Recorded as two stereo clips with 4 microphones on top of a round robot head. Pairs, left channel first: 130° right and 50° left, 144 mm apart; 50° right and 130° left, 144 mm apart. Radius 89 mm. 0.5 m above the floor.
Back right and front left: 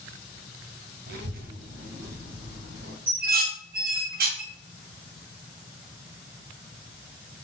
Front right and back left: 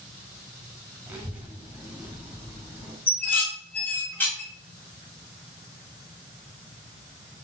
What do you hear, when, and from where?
1.1 s a child speaking: 55° left, 1.5 m; by 3.0 s 40° left, 2.5 m
3.1 s dishes clattering: 30° left, 4 m